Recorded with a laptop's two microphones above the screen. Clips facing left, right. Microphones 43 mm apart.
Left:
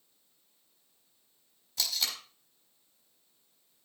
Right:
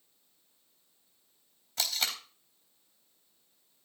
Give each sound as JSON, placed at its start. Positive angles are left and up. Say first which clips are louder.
{"t": 1.8, "sound": "tape being pulled", "louder": "right 1 dB", "side_deg": -50, "distance_m": 3.5}